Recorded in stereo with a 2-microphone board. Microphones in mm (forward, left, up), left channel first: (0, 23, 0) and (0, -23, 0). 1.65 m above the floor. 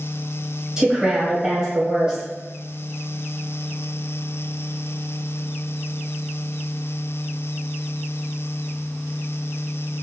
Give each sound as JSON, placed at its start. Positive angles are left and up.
{"t": 0.8, "sound": "a woman speaking", "side_deg": -15, "distance_m": 1.7}